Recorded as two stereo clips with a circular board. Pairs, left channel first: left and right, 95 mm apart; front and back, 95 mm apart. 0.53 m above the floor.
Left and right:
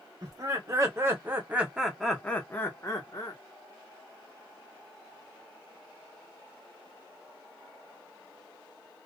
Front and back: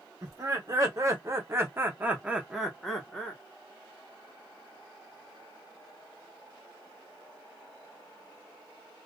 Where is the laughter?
130° right, 1.2 m; by 3.4 s 75° left, 0.9 m.